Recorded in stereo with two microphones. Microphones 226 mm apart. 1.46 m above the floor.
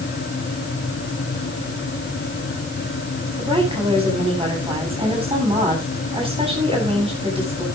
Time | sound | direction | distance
3.4 | a woman speaking | 25° right (ahead or behind) | 10 m